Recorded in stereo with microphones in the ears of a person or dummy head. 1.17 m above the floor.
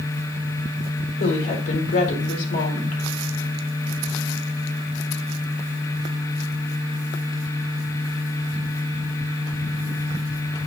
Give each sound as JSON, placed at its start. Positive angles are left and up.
{"t": 1.2, "sound": "a woman speaking", "side_deg": 60, "distance_m": 3.5}